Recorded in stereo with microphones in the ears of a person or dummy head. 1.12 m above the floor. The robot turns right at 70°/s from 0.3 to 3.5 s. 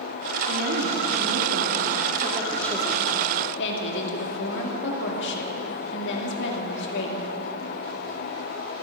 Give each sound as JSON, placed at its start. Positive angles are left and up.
{"t": 0.5, "sound": "a woman speaking", "azimuth_deg": -150, "distance_m": 2.0}